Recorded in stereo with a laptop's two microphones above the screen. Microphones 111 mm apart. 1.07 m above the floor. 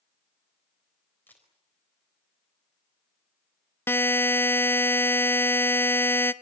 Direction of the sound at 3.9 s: 20° left (ahead or behind).